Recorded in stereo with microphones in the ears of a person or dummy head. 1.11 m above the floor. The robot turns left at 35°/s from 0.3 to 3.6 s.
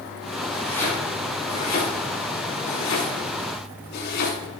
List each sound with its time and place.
0.5 s chopping: 5° left (ahead or behind), 9 m; by 4.4 s 70° left (ahead or behind), 9 m